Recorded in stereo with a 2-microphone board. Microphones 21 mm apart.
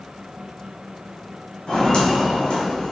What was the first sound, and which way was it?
Footsteps, 50° left (ahead or behind).